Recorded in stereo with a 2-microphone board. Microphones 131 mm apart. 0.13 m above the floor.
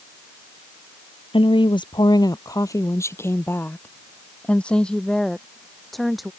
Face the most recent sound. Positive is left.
turn(degrees=0)  # may be behind; listen again after turning